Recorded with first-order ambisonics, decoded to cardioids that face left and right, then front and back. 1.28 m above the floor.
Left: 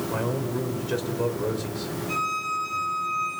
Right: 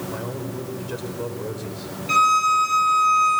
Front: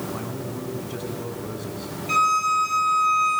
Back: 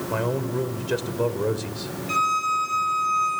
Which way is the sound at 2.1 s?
75° right.